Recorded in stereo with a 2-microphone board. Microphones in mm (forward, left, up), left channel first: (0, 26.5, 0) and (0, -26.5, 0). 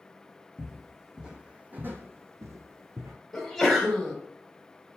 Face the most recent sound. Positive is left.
turn(degrees=5)  # may be behind; listen again after turning